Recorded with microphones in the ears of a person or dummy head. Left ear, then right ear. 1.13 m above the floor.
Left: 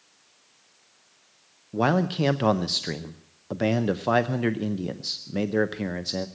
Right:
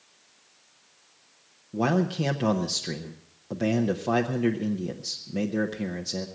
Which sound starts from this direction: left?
A man speaking, at 1.7 s.